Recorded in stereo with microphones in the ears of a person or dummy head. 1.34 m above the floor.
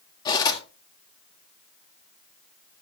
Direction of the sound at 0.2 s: 25° left (ahead or behind).